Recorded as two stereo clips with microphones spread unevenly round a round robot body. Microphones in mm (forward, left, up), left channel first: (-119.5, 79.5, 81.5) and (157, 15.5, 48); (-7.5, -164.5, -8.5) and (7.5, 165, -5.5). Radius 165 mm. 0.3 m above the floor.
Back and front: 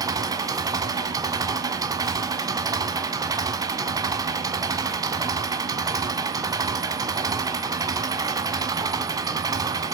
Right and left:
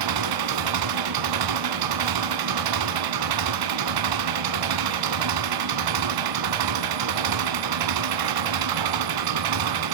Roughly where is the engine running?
Ahead left.